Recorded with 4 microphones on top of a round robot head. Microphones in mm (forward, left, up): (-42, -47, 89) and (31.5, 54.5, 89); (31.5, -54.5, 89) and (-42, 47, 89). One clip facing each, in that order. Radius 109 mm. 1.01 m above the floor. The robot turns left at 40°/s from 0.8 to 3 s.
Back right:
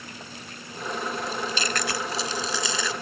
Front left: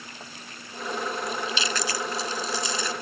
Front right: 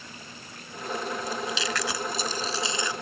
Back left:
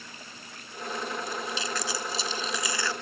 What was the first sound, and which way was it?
Chewing, 60° right.